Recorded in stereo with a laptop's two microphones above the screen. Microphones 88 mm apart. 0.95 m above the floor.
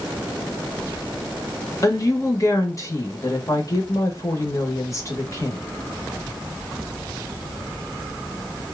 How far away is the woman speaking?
About 1.2 m.